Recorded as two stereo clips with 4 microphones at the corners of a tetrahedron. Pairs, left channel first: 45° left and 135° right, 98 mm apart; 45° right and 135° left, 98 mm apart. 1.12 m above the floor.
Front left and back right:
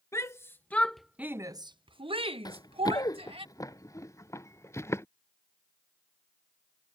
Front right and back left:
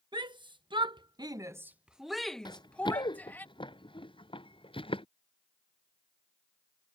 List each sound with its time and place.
0.1 s a shout: 100° left; by 3.5 s 115° right
2.5 s running footsteps: 5° right; by 5.0 s 20° right